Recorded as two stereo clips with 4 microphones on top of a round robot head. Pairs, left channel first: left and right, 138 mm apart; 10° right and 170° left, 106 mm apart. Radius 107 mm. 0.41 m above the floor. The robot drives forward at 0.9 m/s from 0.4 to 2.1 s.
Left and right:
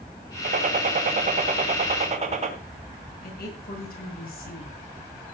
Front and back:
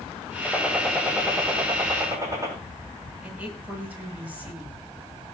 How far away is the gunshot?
About 3 m.